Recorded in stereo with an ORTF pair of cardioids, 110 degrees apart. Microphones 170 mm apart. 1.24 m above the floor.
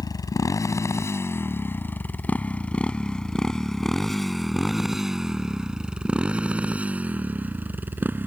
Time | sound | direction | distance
0.0 | a motorcycle | 25° left | ?